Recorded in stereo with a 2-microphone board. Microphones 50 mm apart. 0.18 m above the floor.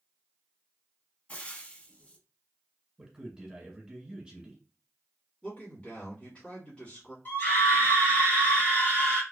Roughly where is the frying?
Left.